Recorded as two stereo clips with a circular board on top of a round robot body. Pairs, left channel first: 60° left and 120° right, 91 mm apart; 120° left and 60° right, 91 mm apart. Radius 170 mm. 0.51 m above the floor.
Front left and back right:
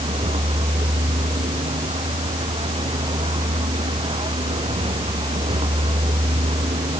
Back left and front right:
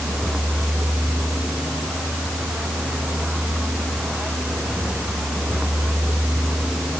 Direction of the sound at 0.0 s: 145° right.